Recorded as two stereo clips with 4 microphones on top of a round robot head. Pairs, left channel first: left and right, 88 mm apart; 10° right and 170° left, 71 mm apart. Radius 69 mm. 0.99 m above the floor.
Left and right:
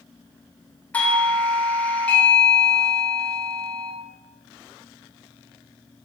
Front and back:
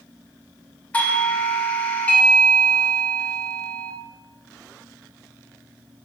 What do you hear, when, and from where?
0.9 s a doorbell: 35° left, 0.9 m